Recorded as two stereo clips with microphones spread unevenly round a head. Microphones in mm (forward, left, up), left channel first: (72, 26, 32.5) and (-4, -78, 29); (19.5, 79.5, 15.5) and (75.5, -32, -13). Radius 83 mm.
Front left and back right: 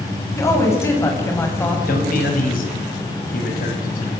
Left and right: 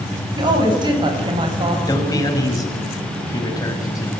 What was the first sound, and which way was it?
A woman speaking, 15° right.